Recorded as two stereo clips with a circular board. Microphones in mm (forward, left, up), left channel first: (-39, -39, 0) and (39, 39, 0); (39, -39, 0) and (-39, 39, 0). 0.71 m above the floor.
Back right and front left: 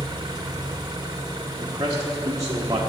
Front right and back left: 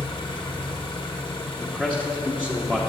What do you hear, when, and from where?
0.0 s an engine running: 5° right, 1.2 m
1.6 s a man speaking: 25° left, 1.0 m